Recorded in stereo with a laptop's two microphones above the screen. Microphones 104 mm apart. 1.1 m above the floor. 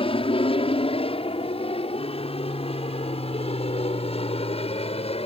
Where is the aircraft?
60° left (ahead or behind); by 5.3 s 70° left (ahead or behind).